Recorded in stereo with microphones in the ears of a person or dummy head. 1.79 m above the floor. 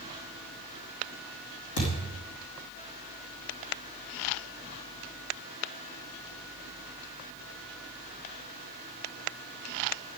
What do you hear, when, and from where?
1.8 s a thud: 60° left (ahead or behind), 4 m